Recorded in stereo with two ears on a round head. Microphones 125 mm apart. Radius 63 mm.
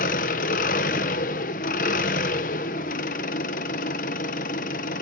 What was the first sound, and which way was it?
An engine running, 65° left (ahead or behind).